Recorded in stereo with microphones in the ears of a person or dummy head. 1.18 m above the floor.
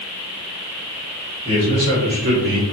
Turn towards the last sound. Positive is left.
turn(degrees=-65)  # may be behind; listen again after turning